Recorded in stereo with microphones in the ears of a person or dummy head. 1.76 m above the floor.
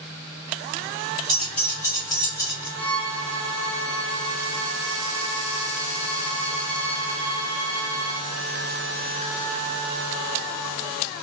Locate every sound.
1.3 s keys jangling: 10° right (ahead or behind), 0.6 m; by 2.7 s 20° left (ahead or behind), 1.8 m
2.8 s a violin: 20° right (ahead or behind), 1.9 m